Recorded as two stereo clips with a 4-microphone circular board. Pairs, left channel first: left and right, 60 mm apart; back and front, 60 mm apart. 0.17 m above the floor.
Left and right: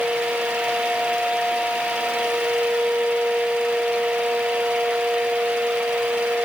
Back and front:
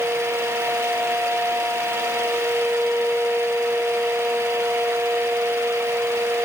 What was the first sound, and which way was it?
Only background noise.